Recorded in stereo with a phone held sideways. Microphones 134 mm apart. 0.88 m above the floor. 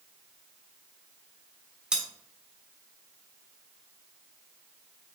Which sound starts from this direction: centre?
Cutlery clinking, at 1.9 s.